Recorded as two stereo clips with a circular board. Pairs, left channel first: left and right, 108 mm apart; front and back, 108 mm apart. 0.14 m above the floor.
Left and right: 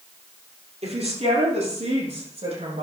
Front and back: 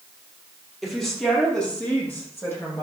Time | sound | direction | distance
0.8 | a woman speaking | 90° right | 4 m